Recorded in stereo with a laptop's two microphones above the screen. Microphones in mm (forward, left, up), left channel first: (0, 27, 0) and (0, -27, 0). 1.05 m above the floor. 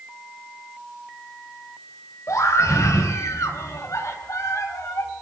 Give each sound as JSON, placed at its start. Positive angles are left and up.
{"t": 2.3, "sound": "a scream", "side_deg": 90, "distance_m": 4.0}